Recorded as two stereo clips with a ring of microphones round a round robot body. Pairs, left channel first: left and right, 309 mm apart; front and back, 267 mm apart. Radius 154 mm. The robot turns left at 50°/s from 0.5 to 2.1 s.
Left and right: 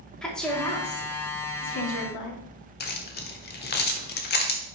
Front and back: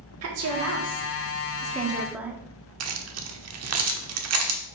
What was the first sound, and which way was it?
A woman speaking, 175° left.